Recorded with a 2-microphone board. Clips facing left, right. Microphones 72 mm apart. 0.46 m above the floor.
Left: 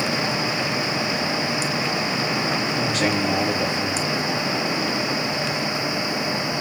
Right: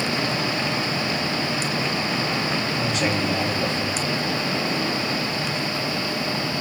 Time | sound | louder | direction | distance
2.7 | a man speaking | left 2 dB | 40° left (ahead or behind) | 5 m